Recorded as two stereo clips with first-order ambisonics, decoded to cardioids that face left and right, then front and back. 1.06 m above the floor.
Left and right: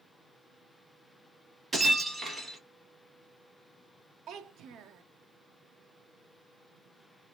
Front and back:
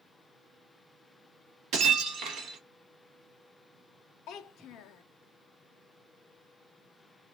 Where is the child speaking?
40° right, 0.5 m.